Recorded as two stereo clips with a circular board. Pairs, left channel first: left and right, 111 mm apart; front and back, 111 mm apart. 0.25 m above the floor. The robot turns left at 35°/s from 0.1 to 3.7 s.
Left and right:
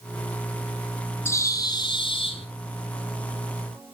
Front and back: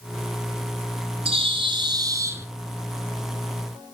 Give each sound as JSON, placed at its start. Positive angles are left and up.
{"t": 1.2, "sound": "a bird", "azimuth_deg": 155, "distance_m": 1.2}